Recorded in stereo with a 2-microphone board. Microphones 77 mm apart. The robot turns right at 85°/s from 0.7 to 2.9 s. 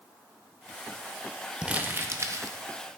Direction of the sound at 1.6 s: 160° right.